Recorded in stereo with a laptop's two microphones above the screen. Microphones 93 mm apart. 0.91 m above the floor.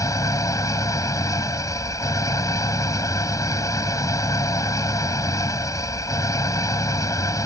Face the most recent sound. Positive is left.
turn(degrees=40)  # may be behind; listen again after turning